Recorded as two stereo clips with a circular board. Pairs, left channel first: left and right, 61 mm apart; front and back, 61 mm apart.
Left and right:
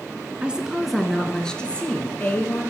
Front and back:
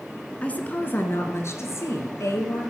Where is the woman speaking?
40° right, 1.2 m; by 2.6 s 30° left, 2.5 m.